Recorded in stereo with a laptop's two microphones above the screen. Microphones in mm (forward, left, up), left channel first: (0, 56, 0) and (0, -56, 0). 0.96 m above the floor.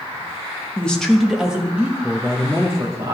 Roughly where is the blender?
I don't hear a blender.